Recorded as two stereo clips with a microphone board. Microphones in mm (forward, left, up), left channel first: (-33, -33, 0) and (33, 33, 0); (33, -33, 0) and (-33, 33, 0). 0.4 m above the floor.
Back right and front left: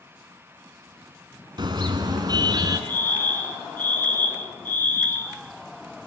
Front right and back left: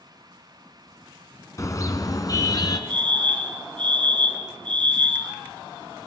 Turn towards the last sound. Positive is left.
turn(degrees=155)